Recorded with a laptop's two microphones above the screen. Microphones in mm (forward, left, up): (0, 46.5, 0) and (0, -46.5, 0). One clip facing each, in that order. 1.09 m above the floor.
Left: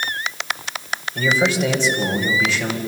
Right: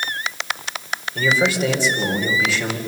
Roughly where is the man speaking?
Centre.